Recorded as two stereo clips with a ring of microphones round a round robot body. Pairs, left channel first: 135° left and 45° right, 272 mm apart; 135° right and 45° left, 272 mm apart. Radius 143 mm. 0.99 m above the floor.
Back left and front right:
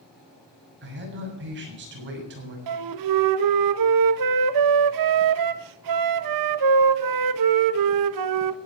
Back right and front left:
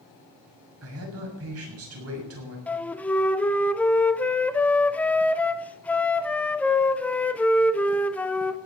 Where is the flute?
50° right, 0.8 m.